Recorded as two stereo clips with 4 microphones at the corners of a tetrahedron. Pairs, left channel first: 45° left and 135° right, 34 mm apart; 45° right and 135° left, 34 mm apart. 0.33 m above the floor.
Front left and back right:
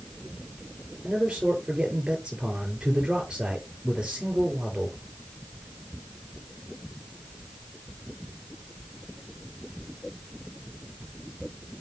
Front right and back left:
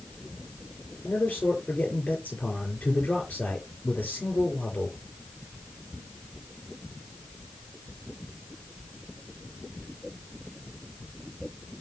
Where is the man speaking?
75° right, 7 m.